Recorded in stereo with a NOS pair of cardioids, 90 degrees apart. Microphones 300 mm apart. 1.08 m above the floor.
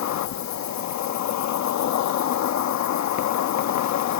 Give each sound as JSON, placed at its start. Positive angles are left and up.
{"t": 0.0, "sound": "an insect", "azimuth_deg": 65}